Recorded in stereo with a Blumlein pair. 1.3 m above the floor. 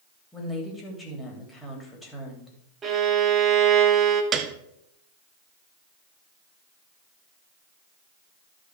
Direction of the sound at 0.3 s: 10° left.